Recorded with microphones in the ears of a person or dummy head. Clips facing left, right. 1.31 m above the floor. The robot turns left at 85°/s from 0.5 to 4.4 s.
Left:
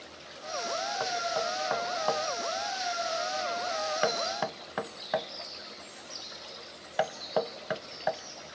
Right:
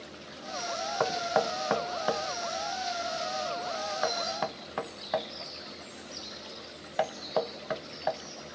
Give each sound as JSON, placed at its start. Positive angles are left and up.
{"t": 1.0, "sound": "knocking", "side_deg": -65, "distance_m": 0.5}